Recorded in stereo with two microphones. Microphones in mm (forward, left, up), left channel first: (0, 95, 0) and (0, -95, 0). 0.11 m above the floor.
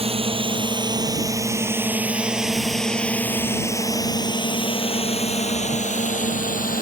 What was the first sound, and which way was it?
A drone, 30° right (ahead or behind).